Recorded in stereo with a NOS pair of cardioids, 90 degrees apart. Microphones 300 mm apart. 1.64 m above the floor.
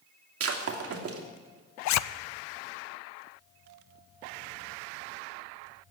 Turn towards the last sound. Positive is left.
turn(degrees=65)